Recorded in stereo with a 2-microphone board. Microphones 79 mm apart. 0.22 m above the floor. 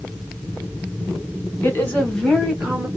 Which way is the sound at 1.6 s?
25° left (ahead or behind).